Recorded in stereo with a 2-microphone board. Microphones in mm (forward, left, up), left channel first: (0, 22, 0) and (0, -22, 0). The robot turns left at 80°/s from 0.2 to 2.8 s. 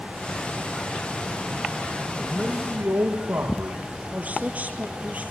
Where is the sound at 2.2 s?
20° right, 5 m; by 3.8 s 65° right, 5 m.